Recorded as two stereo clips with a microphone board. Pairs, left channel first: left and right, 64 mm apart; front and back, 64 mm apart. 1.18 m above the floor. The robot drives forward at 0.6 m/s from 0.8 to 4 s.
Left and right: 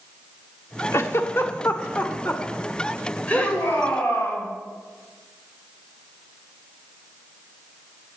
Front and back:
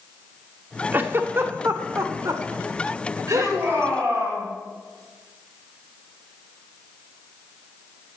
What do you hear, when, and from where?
0.9 s a giggle: 125° left, 1.2 m; by 3.6 s 160° left, 2.5 m
3.3 s a shout: 130° left, 7.5 m